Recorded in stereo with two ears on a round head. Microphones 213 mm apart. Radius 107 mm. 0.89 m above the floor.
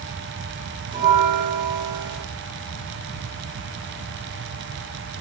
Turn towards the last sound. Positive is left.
turn(degrees=-20)  # may be behind; listen again after turning